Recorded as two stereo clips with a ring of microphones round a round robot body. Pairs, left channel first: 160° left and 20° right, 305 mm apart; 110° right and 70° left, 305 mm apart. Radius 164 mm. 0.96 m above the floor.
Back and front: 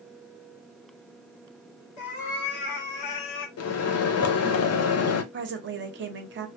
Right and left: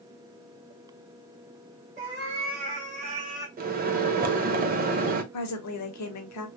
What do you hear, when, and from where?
2.0 s a cat meowing: 125° left, 1.4 m; by 3.5 s 145° left, 0.7 m
3.6 s a microwave: 125° left, 0.6 m
5.3 s a woman speaking: 75° right, 0.9 m